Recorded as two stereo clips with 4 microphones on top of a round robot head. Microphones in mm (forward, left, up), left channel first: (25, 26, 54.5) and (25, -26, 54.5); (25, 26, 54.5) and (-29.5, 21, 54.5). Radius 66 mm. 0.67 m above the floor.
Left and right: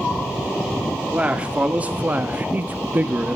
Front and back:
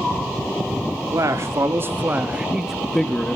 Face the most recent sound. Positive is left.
turn(degrees=-50)